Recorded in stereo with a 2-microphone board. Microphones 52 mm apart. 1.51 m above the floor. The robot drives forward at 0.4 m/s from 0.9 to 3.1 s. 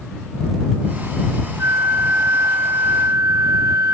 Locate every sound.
1.6 s a flute: 85° right, 1.7 m; by 3.9 s 70° right (ahead or behind), 1.8 m